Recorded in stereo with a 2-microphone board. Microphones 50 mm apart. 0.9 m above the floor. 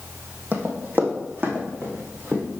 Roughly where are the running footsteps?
Right.